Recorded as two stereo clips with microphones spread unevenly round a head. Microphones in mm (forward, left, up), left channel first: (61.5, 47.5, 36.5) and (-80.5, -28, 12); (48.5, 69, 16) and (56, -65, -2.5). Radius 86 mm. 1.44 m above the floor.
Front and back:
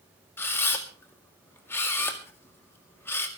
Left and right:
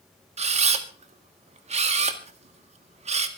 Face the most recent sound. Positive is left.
turn(degrees=-50)